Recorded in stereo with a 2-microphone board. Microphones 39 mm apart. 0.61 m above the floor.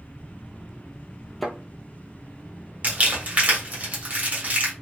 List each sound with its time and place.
1.4 s a thud: 5° left (ahead or behind), 1.0 m
2.8 s crumpling: 45° right (ahead or behind), 1.5 m